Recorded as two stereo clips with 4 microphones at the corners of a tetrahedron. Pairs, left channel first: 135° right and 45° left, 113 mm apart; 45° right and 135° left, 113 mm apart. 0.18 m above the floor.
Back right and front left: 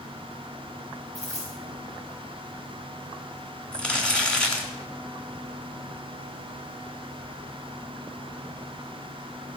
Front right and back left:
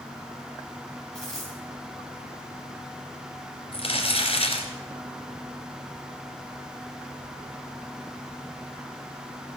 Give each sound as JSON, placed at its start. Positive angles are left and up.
{"t": 1.1, "sound": "a dropped coin", "azimuth_deg": -130, "distance_m": 7.5}
{"t": 3.7, "sound": "crumpling", "azimuth_deg": -55, "distance_m": 2.5}